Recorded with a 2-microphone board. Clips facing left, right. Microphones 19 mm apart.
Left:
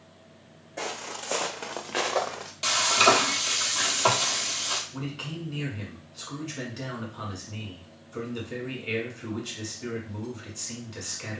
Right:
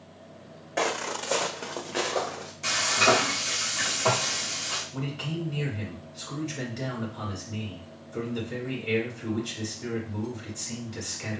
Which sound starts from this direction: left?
Frying, at 2.6 s.